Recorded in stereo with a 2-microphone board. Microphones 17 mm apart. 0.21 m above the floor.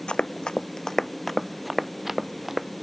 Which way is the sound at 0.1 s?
70° left (ahead or behind).